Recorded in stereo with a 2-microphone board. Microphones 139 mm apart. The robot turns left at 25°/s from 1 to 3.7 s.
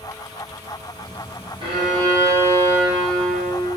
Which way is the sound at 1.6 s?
140° right.